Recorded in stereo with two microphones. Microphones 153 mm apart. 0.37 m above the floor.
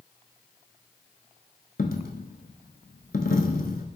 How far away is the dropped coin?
About 0.6 m.